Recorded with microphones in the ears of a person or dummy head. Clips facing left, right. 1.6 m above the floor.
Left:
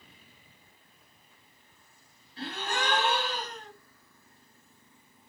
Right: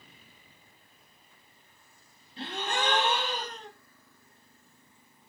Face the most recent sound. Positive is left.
turn(degrees=-25)  # may be behind; listen again after turning